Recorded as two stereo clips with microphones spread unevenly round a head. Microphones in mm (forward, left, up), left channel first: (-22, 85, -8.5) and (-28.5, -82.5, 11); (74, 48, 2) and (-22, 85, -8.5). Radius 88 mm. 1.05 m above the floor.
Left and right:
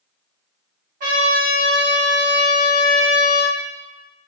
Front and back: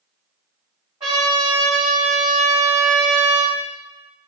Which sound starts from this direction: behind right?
A trumpet, at 1.0 s.